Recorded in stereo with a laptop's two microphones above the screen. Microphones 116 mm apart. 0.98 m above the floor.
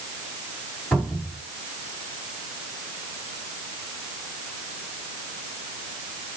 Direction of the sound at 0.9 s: 10° left (ahead or behind).